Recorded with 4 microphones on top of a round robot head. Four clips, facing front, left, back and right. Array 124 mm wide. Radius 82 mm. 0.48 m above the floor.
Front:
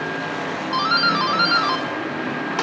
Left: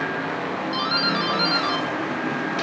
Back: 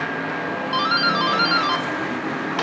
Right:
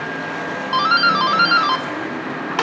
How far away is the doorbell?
About 1.9 m.